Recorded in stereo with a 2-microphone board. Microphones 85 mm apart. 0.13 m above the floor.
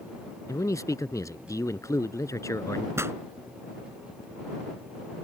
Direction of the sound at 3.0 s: 30° right (ahead or behind).